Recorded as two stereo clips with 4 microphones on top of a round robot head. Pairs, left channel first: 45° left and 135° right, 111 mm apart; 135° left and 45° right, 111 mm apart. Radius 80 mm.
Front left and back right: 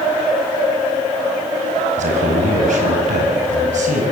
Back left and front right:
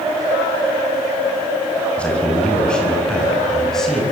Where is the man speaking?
145° right, 5.5 m; by 4.0 s 140° right, 6.5 m.